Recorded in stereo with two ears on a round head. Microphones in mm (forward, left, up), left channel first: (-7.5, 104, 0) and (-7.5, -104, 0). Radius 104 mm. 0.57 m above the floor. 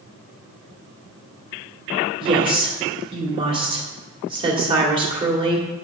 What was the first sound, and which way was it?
A woman speaking, 25° right (ahead or behind).